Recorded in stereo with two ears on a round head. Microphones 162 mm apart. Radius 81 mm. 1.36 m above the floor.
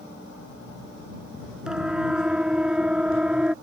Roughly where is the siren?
Centre.